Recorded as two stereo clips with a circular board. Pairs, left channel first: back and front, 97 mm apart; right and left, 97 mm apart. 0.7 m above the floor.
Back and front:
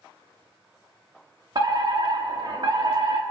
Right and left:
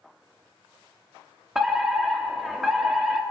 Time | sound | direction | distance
1.6 | a fire alarm | 5° left | 2 m